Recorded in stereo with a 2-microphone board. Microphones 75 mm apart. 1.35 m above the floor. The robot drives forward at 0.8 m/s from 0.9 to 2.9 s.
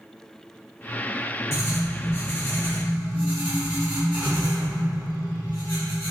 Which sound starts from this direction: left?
Writing, at 1.5 s.